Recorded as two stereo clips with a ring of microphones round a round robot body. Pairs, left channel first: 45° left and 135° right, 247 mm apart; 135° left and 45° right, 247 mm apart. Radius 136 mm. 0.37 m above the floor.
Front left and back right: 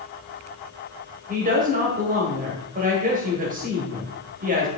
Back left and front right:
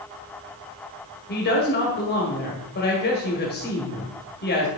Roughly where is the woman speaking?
Behind.